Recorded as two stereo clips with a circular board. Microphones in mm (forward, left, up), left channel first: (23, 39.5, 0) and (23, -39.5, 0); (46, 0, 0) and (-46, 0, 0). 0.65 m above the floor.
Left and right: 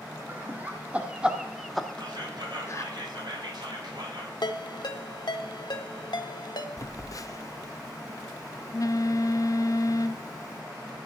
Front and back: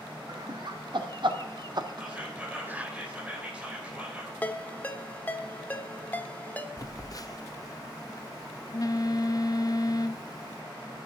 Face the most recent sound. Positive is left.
turn(degrees=45)